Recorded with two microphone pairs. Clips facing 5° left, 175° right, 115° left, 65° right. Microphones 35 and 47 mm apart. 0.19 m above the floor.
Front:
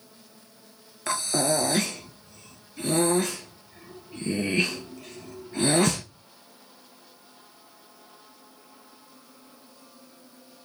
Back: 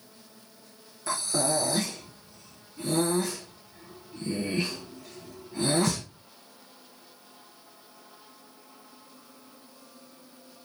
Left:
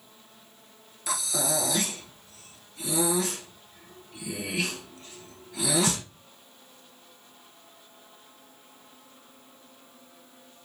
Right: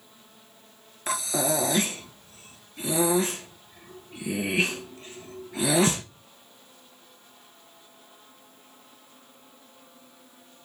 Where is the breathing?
15° right, 1.3 m.